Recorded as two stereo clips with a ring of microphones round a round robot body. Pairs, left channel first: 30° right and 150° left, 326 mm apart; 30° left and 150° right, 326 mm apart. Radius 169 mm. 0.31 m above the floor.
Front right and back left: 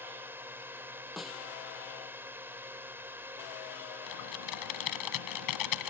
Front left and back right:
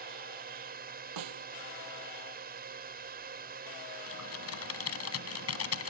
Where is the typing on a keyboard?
15° right.